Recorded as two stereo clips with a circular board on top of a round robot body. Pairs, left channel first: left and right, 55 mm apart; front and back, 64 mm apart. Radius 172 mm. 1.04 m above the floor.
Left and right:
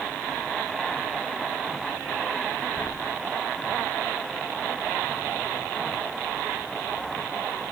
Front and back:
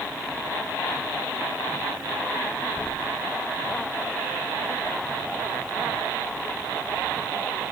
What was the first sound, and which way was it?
Only background noise.